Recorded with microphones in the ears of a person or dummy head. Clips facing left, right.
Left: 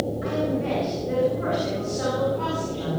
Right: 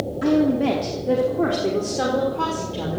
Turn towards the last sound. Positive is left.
turn(degrees=-85)